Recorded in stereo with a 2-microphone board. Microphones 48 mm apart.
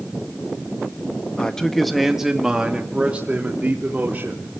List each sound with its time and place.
1.4 s a man speaking: 15° left (ahead or behind), 1.6 m; by 4.5 s 40° right (ahead or behind), 3.5 m